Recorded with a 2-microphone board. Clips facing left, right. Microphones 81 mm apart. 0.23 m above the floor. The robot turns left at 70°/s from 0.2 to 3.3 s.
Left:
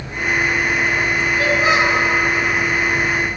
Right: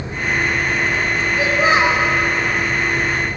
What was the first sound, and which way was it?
A child speaking, 30° right.